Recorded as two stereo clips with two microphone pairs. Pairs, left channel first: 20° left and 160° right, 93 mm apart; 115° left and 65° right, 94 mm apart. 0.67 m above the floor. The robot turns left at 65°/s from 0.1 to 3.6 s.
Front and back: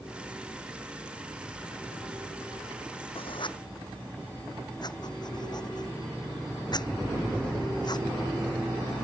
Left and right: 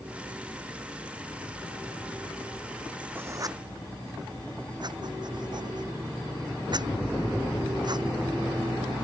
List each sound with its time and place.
3.1 s writing: 5° left; by 8.1 s 20° right